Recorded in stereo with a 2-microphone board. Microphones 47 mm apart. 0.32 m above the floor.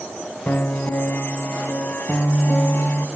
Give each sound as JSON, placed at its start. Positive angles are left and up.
{"t": 0.5, "sound": "a piano", "side_deg": 45, "distance_m": 0.6}